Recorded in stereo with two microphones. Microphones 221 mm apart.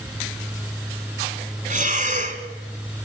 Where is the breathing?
35° right (ahead or behind), 1.9 m.